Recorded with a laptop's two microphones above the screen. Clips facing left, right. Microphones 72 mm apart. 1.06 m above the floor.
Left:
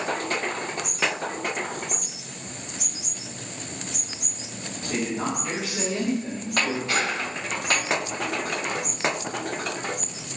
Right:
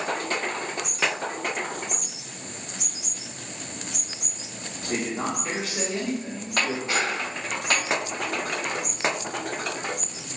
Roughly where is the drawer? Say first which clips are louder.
Even; right.